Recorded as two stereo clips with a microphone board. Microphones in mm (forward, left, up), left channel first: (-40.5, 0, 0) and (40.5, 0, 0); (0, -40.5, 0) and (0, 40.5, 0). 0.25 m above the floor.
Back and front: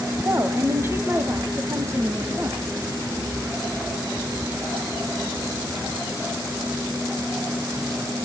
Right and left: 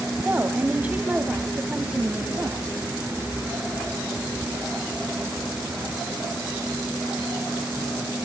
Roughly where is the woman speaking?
Ahead left.